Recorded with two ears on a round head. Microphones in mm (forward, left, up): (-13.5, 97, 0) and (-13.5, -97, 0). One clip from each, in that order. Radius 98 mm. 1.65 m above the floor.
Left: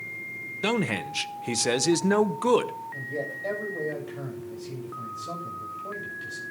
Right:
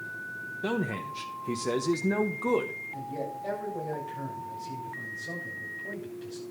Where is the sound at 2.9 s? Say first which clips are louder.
Left 3 dB; 25° left (ahead or behind), 8 m.